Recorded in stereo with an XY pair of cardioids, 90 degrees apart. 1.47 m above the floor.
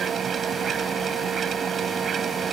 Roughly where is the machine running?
Ahead right.